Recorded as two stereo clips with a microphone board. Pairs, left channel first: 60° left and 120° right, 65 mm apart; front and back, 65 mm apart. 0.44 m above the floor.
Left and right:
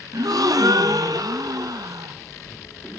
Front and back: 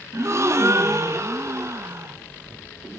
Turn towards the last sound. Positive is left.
turn(degrees=-135)